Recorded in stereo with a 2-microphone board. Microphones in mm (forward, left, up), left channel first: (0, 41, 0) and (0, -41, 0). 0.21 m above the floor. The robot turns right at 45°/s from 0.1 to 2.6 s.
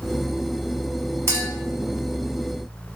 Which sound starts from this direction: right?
A clink, at 1.3 s.